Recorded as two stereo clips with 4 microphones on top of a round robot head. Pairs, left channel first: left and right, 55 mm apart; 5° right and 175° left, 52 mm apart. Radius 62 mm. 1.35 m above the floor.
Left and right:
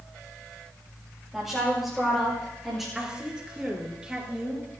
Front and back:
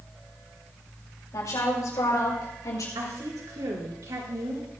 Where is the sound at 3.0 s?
165° right, 4.5 m.